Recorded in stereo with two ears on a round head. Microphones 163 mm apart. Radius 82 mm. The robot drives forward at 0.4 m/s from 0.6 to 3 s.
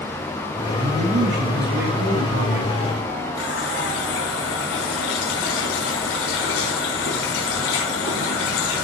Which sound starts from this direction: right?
A man speaking, at 0.8 s.